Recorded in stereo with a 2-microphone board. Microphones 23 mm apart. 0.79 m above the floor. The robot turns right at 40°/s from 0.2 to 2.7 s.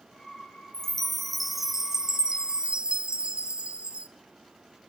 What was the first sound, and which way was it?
A chime, 155° left.